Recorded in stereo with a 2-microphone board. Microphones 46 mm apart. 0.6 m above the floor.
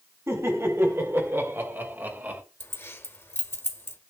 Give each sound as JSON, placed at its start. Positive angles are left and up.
{"t": 0.3, "sound": "laughter", "side_deg": -75, "distance_m": 3.0}
{"t": 2.6, "sound": "keys jangling", "side_deg": 60, "distance_m": 1.3}